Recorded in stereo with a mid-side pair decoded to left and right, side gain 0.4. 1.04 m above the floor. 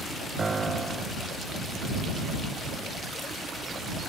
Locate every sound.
0.4 s a piano: 35° right